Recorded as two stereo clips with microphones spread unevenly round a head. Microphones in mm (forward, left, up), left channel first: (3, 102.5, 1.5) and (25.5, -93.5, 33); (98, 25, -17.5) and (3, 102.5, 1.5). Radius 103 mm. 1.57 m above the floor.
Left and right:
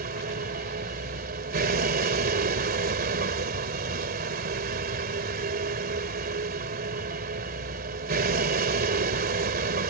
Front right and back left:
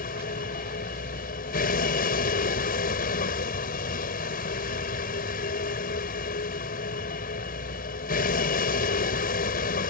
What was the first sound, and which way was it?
A vehicle, 40° right.